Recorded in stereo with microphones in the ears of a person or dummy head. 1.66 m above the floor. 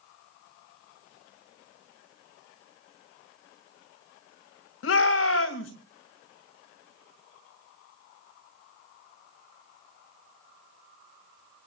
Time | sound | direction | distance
4.8 | a shout | 75° left (ahead or behind) | 2.5 m